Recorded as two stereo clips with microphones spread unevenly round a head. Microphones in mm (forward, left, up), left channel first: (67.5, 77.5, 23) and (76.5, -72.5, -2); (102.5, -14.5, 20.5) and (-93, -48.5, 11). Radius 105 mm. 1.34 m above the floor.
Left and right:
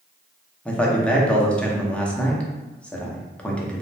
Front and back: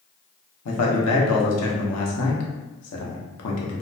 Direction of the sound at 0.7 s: 10° left.